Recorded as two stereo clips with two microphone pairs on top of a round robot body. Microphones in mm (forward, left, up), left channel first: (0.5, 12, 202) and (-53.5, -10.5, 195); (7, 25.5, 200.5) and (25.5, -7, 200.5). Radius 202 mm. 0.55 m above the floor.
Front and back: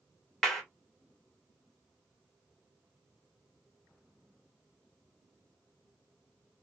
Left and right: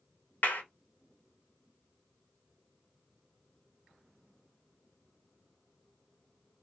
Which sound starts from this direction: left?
A clap, at 0.4 s.